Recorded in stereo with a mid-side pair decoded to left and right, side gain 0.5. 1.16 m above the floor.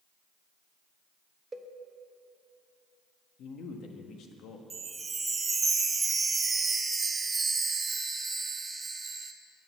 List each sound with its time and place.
1.5 s a cowbell: 25° right, 0.9 m
3.4 s a man speaking: 65° left, 1.3 m
4.7 s a chime: 30° right, 0.8 m